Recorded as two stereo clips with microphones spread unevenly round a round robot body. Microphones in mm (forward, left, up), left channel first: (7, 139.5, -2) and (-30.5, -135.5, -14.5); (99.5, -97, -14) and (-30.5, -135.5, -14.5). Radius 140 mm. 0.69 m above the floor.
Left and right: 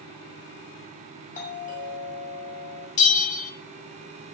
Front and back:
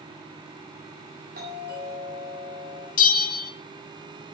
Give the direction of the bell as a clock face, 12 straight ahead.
11 o'clock.